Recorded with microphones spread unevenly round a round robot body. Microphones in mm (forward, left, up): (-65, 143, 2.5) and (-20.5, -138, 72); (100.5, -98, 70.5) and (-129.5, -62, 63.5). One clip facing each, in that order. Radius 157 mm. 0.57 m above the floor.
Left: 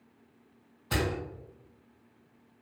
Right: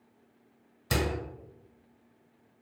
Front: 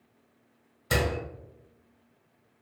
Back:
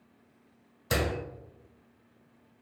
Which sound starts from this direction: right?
A door slam, at 0.9 s.